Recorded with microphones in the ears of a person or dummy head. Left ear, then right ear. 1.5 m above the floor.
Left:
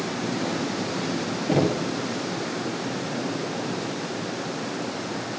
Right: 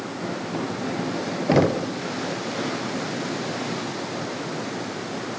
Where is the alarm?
I don't hear an alarm.